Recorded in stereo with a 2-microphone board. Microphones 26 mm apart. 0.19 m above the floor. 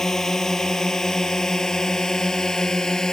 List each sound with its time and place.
0.0 s a drone: 20° left (ahead or behind); by 3.1 s 25° left (ahead or behind)